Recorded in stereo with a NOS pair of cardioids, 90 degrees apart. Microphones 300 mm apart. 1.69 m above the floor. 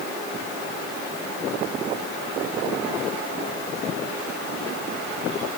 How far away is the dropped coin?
No dropped coin in this recording.